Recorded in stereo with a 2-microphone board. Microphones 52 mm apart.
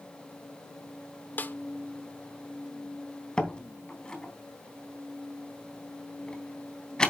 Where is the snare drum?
35° left (ahead or behind), 0.9 m.